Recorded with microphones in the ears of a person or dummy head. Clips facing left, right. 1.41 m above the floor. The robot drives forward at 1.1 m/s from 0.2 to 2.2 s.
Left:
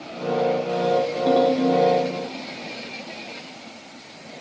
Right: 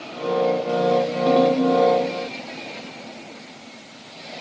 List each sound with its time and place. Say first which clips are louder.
1.3 s a ringtone: right 1 dB; centre (ahead or behind), 0.6 m